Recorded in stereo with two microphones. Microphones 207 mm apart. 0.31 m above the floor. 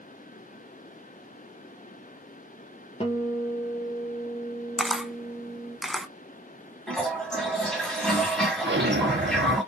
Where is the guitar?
30° left (ahead or behind), 1.4 m.